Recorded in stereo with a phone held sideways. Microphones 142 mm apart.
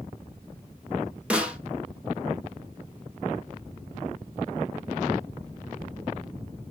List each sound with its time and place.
1.3 s a snare drum: 10° right (ahead or behind), 1.0 m